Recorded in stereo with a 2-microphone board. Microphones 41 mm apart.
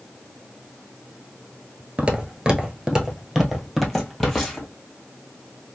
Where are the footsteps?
30° right (ahead or behind), 0.9 m; by 4.7 s 10° left (ahead or behind), 1.8 m.